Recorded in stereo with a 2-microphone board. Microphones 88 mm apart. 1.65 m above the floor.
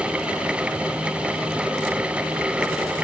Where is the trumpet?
I don't hear a trumpet.